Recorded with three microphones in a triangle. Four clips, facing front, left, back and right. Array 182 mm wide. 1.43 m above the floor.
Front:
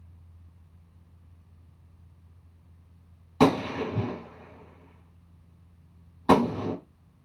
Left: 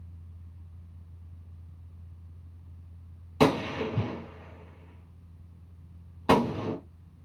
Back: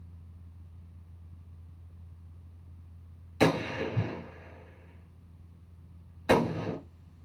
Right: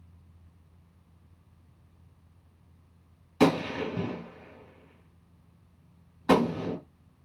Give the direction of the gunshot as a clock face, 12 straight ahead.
11 o'clock.